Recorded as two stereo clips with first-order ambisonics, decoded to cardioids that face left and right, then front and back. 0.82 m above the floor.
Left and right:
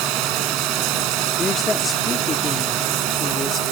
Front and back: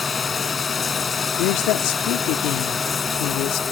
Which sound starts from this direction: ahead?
A woman speaking, at 1.4 s.